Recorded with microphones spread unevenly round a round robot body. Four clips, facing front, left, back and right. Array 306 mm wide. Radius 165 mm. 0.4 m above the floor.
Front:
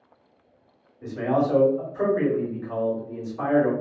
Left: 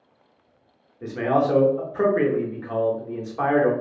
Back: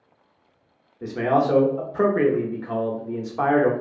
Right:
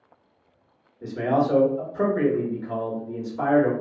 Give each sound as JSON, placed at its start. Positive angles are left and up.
{"t": 1.0, "sound": "a man speaking", "azimuth_deg": 160, "distance_m": 1.1}